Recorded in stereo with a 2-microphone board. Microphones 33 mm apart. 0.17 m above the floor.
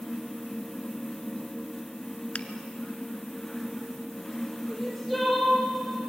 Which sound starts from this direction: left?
A finger snap, at 2.4 s.